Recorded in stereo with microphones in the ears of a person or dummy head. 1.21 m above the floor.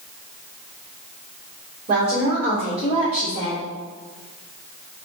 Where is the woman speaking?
45° right (ahead or behind), 3 m; by 3.6 s 30° right (ahead or behind), 4.5 m.